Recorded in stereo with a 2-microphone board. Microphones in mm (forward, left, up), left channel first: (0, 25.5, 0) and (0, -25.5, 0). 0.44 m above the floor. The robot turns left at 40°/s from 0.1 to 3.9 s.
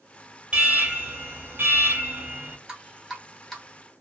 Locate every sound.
0.5 s an alarm: 35° right, 1.0 m; by 2.6 s 115° right, 1.0 m
2.7 s dripping: 15° right (ahead or behind), 1.1 m; by 3.6 s 10° left (ahead or behind), 1.1 m